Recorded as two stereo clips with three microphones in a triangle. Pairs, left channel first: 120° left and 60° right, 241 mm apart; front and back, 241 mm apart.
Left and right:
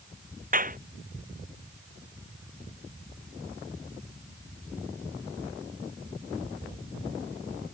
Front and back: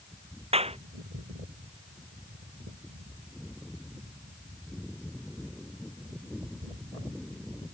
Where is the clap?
115° right.